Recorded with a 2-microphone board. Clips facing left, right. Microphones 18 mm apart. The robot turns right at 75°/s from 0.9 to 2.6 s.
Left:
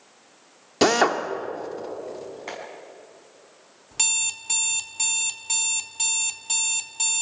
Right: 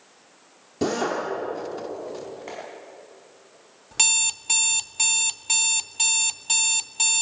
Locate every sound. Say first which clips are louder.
0.8 s a drill: left 6 dB; 55° left (ahead or behind), 2 m; by 1.2 s 35° left (ahead or behind), 2 m
2.5 s a clap: left 3 dB; 15° left (ahead or behind), 6.5 m; by 2.6 s 25° left (ahead or behind), 6.5 m
3.9 s an alarm clock: right 3 dB; 15° right (ahead or behind), 0.7 m